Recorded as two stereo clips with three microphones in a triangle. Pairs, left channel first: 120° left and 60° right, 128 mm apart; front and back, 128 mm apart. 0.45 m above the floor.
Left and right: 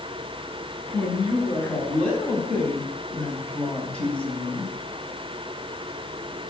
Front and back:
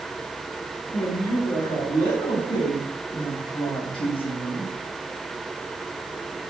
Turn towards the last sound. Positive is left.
turn(degrees=40)